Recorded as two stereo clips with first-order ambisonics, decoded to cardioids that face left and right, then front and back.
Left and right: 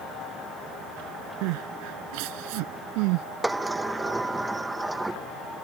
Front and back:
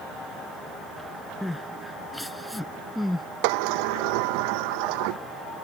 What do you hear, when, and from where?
1.4 s crying: 85° right
3.4 s a sliding door: 175° right